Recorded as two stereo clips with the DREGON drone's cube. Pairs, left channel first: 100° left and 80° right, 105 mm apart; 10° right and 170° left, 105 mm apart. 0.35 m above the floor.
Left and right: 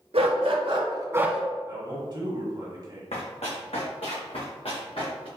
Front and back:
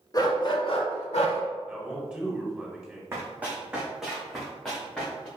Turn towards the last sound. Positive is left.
turn(degrees=70)